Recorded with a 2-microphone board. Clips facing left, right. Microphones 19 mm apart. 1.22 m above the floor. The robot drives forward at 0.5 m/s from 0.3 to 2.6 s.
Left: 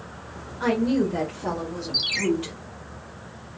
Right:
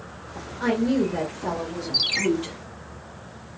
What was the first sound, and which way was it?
A woman speaking, 5° left (ahead or behind).